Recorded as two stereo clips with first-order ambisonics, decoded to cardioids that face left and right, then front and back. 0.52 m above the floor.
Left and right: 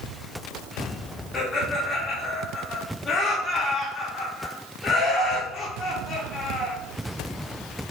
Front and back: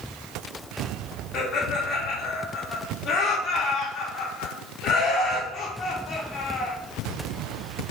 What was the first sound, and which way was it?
Laughter, 25° left.